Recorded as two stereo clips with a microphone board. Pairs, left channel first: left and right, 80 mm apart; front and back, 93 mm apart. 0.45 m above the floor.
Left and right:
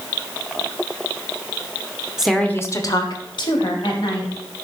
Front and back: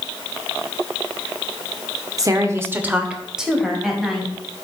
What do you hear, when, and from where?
2.2 s a woman speaking: 165° right, 0.8 m; by 4.3 s 90° left, 3 m